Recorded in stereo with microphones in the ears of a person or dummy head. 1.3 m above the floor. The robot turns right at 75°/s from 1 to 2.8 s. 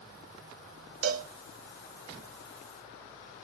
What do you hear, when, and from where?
1.0 s a cowbell: 60° right (ahead or behind), 0.6 m; by 1.3 s 45° right (ahead or behind), 0.6 m